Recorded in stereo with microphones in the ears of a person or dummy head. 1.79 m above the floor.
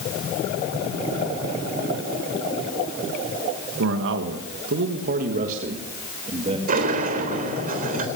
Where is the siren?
No siren in this recording.